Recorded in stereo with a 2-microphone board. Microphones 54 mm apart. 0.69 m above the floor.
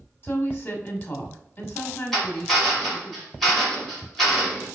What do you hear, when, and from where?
0.2 s a woman speaking: 40° left (ahead or behind), 0.9 m
2.1 s a drill: 5° left (ahead or behind), 1.6 m